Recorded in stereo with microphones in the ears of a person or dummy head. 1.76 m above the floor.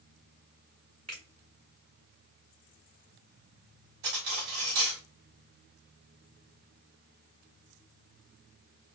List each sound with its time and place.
1.1 s a finger snap: 40° right (ahead or behind), 1.7 m
4.0 s cutlery clinking: 65° right (ahead or behind), 2 m